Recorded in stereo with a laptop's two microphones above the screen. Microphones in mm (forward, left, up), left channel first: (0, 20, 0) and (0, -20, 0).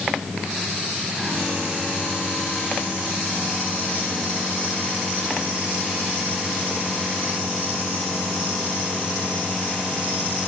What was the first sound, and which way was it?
Only background noise.